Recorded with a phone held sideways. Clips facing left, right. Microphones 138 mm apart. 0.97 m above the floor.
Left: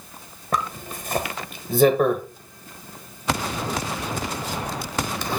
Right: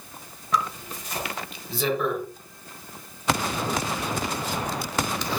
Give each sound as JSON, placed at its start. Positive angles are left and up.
{"t": 0.5, "sound": "a zipper", "side_deg": 50, "distance_m": 1.3}